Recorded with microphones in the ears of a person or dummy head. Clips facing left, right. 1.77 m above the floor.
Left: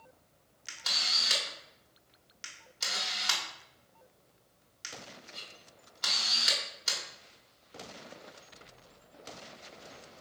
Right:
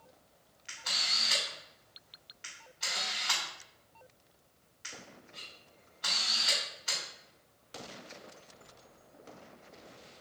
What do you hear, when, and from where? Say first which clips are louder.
0.7 s a camera shutter: left 1 dB; 65° left (ahead or behind), 1.3 m